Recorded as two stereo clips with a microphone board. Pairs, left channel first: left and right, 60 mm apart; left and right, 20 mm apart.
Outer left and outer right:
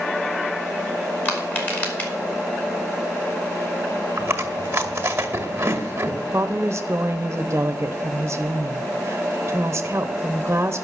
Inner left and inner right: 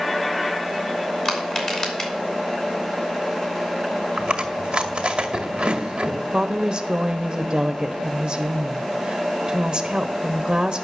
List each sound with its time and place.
1.2 s crushing: 30° left (ahead or behind), 3 m
4.2 s chewing: 40° right (ahead or behind), 1.8 m
6.3 s a woman speaking: 40° right (ahead or behind), 0.7 m